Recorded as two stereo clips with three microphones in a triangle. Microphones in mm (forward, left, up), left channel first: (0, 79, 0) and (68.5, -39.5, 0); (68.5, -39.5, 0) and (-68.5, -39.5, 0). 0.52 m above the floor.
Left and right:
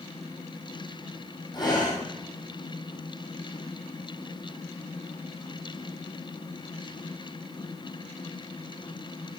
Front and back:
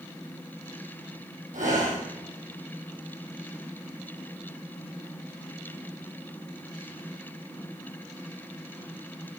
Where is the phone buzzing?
No phone buzzing in this recording.